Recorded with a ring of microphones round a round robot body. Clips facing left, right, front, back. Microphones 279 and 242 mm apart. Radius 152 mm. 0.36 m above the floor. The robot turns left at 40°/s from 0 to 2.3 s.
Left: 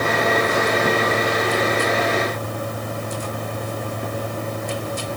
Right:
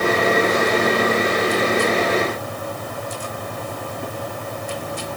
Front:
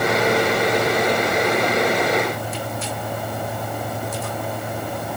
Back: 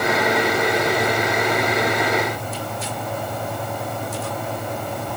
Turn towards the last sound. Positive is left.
No sound to turn to.